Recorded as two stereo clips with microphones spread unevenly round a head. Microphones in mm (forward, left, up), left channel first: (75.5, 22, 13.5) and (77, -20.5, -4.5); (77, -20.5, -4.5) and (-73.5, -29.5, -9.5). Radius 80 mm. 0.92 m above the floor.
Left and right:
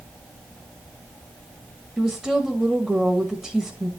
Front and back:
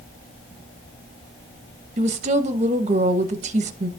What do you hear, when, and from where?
2.0 s a woman speaking: 150° right, 1.0 m